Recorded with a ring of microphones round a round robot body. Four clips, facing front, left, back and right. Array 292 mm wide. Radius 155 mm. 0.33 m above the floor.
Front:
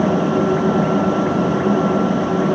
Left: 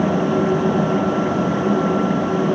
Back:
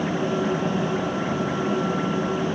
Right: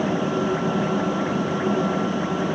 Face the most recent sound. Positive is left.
No sound to turn to.